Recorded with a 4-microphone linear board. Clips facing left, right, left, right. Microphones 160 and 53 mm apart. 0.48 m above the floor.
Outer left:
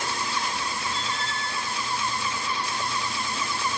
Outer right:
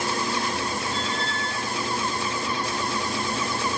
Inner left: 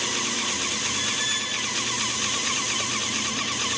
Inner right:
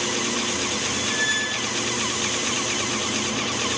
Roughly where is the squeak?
Right.